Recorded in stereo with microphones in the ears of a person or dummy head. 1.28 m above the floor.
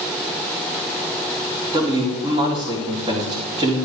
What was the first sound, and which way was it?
A man speaking, 30° right (ahead or behind).